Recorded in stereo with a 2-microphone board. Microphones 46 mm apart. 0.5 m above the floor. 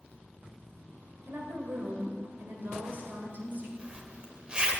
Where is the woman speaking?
60° right (ahead or behind), 2.5 m; by 3.7 s 45° right (ahead or behind), 2.5 m.